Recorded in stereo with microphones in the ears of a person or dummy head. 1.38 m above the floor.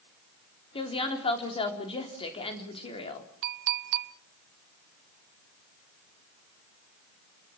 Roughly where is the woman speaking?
Left.